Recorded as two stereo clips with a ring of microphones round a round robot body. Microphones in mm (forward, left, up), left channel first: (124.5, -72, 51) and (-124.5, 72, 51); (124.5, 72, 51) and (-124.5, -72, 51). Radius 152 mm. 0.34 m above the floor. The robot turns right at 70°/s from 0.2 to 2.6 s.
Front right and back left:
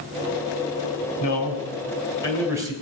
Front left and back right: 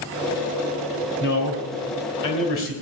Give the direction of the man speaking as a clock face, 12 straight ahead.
1 o'clock.